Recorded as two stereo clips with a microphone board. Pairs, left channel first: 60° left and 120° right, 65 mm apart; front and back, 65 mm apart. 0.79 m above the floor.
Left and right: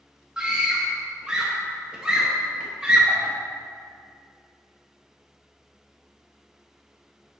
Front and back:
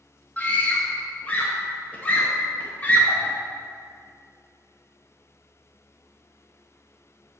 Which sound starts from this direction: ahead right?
A scream, at 0.4 s.